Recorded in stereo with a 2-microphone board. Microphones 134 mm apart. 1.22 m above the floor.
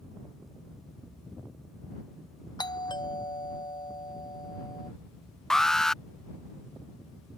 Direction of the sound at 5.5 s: 5° left (ahead or behind).